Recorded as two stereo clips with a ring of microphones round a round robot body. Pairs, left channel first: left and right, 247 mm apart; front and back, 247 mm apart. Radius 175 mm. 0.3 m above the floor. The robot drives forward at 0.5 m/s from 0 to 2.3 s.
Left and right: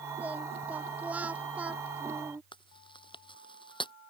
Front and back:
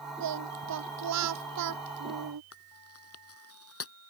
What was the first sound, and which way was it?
Singing, 175° right.